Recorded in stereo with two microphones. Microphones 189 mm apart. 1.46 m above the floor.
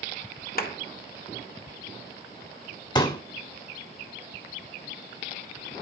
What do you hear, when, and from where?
0.6 s a clap: 50° left (ahead or behind), 1.5 m
3.0 s a pop: 20° left (ahead or behind), 1.7 m